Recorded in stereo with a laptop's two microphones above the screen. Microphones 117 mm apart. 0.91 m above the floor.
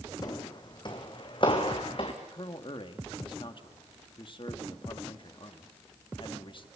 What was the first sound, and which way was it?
Footsteps, 35° left (ahead or behind).